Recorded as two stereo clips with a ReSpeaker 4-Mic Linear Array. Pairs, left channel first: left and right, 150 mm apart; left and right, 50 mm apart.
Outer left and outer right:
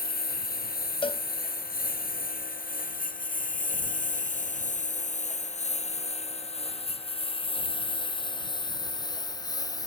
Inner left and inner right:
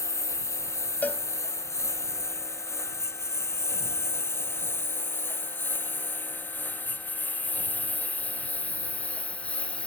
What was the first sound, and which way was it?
A lawn mower, 90° left.